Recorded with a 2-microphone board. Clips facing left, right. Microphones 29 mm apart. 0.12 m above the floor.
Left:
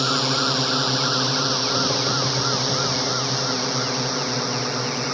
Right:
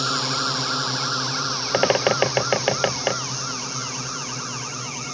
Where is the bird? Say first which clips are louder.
Right 3 dB; 60° right (ahead or behind).